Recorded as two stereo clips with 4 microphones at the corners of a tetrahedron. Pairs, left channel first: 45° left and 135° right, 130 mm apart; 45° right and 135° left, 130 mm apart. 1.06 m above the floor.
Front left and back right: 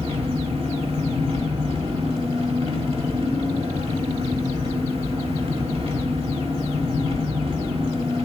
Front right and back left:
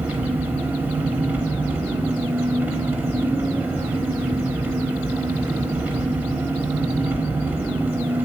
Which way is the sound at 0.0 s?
150° right.